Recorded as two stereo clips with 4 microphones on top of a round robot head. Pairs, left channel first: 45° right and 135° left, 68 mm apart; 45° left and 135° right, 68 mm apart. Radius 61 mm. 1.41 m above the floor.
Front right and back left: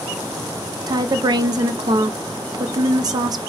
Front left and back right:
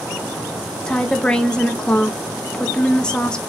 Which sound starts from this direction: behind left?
A woman speaking, at 0.9 s.